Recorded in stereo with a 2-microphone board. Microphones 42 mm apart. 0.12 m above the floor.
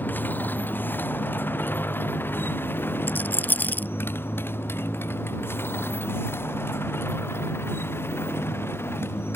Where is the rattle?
45° left (ahead or behind).